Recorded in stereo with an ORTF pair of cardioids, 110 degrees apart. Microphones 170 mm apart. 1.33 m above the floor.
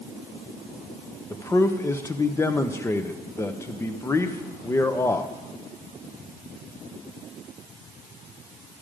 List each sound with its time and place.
1.3 s a man speaking: 15° left, 1.0 m